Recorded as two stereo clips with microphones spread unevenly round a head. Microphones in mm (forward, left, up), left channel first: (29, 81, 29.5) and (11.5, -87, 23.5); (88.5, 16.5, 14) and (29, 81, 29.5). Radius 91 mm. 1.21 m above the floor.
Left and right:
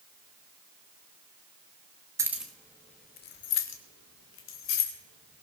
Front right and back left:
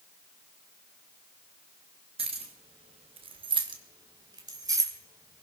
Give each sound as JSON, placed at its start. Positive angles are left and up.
{"t": 2.2, "sound": "keys jangling", "azimuth_deg": -170, "distance_m": 1.3}